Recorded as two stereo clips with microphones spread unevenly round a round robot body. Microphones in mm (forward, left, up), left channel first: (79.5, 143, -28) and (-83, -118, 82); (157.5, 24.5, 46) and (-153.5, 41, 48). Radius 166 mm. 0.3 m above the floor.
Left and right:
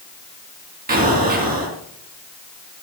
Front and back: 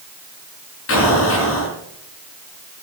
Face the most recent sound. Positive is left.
turn(degrees=-55)